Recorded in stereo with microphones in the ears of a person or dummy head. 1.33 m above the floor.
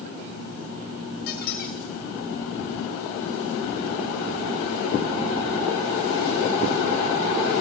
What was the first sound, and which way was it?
A squeak, 40° left (ahead or behind).